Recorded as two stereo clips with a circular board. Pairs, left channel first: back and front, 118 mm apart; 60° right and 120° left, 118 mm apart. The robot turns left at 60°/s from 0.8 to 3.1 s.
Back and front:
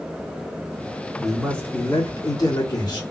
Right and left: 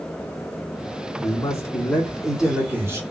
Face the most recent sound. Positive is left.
turn(degrees=160)